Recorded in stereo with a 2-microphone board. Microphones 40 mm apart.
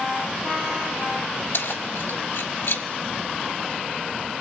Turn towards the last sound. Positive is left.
turn(degrees=70)  # may be behind; listen again after turning